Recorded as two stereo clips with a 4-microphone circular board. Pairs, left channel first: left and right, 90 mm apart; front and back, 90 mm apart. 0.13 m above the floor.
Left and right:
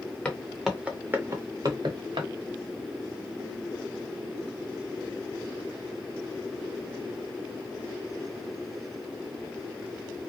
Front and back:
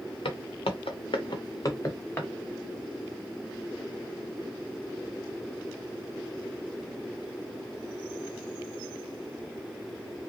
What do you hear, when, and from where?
0.2 s footsteps: 15° left, 1.1 m; by 2.3 s 70° right, 1.4 m